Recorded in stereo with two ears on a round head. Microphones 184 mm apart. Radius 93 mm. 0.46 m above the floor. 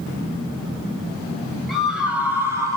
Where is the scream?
Centre (ahead or behind), 2 m; by 2.8 s 15° right (ahead or behind), 2 m.